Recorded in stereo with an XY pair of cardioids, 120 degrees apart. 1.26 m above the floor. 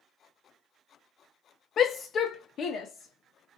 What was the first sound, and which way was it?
A shout, 50° left.